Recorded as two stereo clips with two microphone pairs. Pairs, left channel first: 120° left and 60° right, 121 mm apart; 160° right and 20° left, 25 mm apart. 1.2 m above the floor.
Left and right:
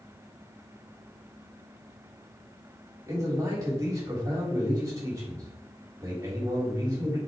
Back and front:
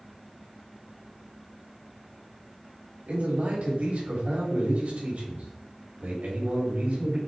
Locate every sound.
3.1 s a man speaking: 5° left, 3.5 m